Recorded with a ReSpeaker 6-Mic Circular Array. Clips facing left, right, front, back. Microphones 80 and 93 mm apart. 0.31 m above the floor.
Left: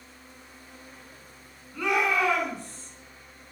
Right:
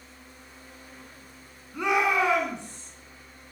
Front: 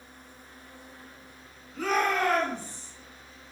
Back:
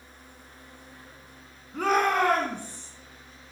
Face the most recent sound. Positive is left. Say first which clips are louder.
# right 1 dB, back 3 dB
turn(degrees=-155)